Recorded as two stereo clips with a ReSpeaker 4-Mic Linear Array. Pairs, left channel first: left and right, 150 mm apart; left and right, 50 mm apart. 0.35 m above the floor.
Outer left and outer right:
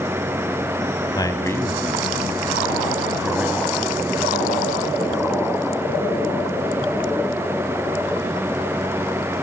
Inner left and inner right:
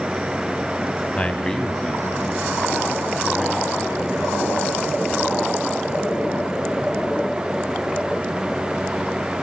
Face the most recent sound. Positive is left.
turn(degrees=-20)  # may be behind; listen again after turning